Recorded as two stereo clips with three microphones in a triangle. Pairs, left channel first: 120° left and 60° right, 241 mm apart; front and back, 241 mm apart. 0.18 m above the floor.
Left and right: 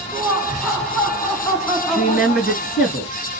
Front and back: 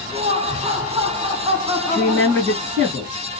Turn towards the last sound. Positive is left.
turn(degrees=150)